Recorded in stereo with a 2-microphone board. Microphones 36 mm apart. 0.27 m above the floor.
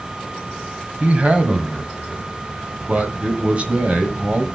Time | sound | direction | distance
1.0 | a man speaking | 35° right (ahead or behind) | 1.5 m